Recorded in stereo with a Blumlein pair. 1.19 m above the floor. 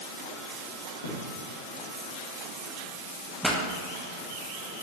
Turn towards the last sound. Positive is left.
turn(degrees=0)